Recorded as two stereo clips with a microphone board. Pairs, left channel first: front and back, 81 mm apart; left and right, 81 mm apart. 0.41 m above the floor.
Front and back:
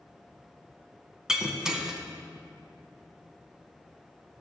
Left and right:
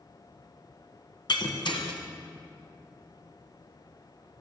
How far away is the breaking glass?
About 1.5 m.